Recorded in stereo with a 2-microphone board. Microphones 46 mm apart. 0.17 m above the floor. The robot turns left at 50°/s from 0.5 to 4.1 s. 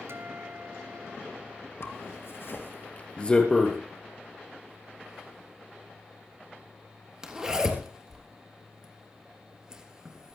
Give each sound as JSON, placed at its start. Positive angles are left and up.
{"t": 0.1, "sound": "a guitar", "azimuth_deg": -75, "distance_m": 1.2}
{"t": 1.8, "sound": "a zipper", "side_deg": 65, "distance_m": 3.0}